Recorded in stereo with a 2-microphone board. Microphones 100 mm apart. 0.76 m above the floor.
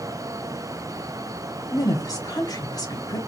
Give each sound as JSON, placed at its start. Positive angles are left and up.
{"t": 1.7, "sound": "a woman speaking", "side_deg": 40, "distance_m": 2.0}